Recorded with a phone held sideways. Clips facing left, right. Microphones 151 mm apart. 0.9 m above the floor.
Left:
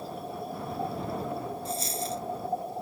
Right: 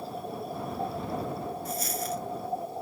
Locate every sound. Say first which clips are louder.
1.6 s a dropped coin: even; 30° left (ahead or behind)